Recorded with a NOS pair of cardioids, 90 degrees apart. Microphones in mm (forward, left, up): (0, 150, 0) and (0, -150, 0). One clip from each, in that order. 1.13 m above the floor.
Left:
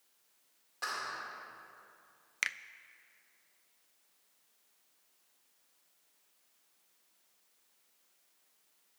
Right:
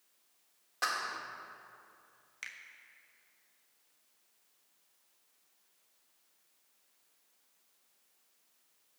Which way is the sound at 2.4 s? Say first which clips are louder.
Left 10 dB; 50° left.